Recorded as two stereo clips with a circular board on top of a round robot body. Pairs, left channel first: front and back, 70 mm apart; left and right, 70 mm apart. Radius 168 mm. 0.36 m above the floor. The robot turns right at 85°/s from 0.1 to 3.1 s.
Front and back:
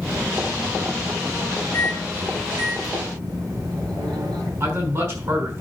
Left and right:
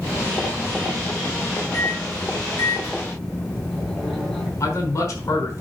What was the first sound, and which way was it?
A microwave, 50° left.